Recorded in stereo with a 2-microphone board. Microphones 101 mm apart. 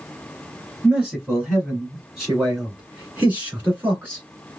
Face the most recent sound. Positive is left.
turn(degrees=-20)  # may be behind; listen again after turning